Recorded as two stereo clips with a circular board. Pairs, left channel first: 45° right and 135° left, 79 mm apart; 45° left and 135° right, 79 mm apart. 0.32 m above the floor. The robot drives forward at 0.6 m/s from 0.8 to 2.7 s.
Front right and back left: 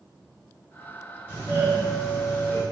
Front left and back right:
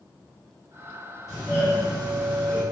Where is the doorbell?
155° left, 1.6 m; by 2.6 s 165° left, 2 m.